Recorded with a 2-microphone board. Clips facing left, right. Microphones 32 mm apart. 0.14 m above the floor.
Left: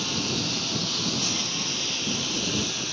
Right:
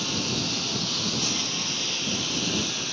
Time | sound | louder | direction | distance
0.0 | a lawn mower | even | centre (ahead or behind) | ?